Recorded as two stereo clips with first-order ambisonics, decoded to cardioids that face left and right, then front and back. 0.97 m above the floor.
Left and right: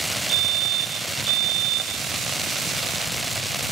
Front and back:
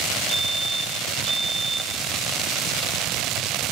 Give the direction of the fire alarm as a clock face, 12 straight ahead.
3 o'clock.